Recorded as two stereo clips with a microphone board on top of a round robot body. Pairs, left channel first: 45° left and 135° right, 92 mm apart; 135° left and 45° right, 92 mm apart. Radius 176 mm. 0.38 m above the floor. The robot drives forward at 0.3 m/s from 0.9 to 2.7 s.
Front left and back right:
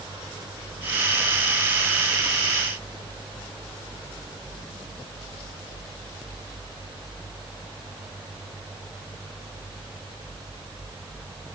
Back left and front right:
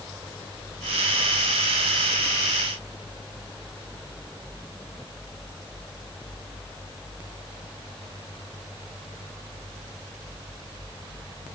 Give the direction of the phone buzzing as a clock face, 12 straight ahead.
No phone buzzing in this recording.